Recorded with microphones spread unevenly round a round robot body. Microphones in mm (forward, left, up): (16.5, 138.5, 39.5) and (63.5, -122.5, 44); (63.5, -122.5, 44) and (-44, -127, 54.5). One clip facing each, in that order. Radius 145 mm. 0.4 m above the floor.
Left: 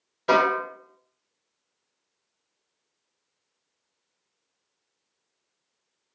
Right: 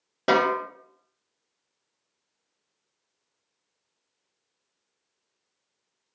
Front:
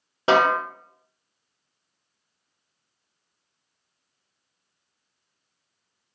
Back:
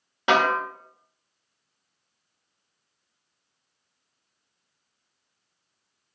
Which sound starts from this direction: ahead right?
A snare drum, at 0.3 s.